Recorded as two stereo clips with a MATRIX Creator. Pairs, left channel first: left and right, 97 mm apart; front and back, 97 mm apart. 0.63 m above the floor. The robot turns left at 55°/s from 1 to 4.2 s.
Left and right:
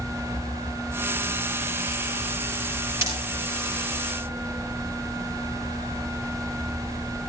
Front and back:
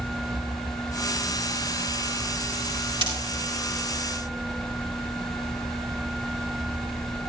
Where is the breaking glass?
150° right, 7 m; by 3.1 s 155° right, 7 m.